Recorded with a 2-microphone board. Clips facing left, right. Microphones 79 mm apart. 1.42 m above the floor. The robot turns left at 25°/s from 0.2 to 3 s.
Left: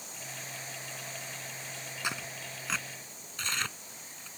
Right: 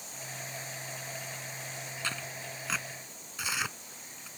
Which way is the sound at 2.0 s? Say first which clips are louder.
Left 2 dB; 15° left (ahead or behind).